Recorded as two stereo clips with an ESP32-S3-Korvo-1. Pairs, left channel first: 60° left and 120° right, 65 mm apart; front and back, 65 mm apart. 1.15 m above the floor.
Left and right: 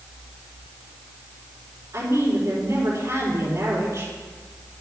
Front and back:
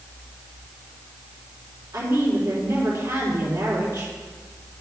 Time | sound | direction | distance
1.9 | a woman speaking | 165° right | 4 m